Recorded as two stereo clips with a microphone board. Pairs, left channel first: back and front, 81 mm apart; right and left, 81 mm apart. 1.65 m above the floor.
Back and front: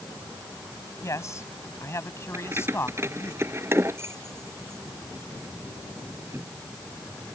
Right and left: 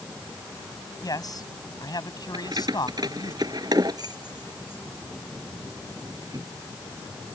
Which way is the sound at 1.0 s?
130° right.